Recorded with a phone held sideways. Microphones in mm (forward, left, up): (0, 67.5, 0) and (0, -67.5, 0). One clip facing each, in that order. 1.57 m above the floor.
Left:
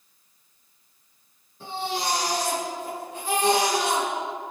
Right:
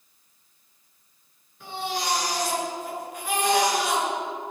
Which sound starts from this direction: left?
A baby crying, at 1.6 s.